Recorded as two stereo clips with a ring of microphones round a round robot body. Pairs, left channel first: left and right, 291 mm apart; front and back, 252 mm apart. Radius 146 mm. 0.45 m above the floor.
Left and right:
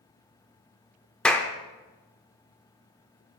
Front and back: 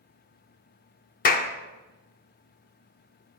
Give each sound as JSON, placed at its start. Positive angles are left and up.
{"t": 1.2, "sound": "a clap", "azimuth_deg": 5, "distance_m": 0.8}